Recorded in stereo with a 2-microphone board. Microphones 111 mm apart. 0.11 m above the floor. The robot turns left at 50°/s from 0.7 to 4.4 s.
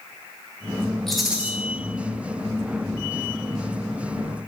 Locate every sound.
1.1 s a rattle: 5° left (ahead or behind), 1.4 m; by 1.5 s 15° right (ahead or behind), 1.4 m